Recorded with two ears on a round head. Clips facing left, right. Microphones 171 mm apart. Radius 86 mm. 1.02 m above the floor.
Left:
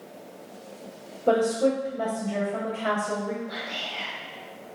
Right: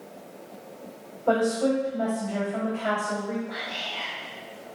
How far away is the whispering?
About 1.1 m.